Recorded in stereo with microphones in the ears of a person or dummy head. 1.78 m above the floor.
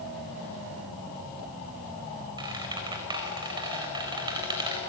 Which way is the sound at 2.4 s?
20° right (ahead or behind).